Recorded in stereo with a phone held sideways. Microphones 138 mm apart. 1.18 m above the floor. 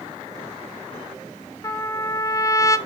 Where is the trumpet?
20° left (ahead or behind), 0.6 m.